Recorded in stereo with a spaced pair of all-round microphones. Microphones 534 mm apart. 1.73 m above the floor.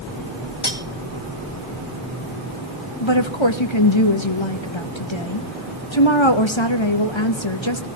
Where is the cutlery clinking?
65° left (ahead or behind), 1.9 m.